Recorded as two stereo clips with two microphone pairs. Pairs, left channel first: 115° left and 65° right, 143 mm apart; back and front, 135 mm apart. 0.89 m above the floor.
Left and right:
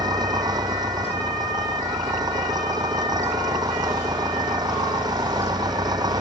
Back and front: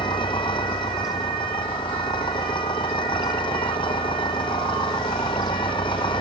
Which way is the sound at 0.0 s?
125° right.